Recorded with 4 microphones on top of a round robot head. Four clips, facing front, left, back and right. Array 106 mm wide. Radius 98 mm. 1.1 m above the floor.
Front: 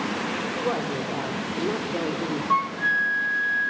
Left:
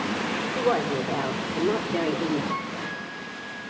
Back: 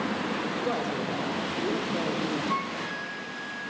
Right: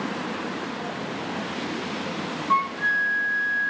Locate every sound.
0.6 s a woman speaking: 70° left, 5 m; by 2.4 s 65° left, 4 m
2.5 s a flute: 45° right, 0.6 m